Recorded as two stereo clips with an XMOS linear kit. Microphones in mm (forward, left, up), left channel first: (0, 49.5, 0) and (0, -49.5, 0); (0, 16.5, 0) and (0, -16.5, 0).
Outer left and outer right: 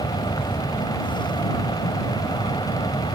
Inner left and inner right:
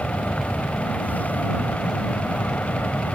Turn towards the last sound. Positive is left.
turn(degrees=50)  # may be behind; listen again after turning